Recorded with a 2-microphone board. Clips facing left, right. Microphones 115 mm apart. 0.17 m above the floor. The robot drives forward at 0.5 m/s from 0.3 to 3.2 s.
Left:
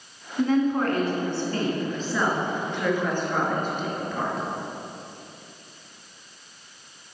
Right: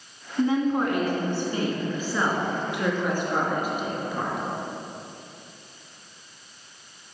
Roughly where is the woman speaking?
Centre.